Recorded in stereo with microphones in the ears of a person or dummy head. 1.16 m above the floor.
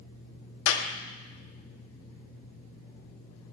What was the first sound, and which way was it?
A clap, 85° left.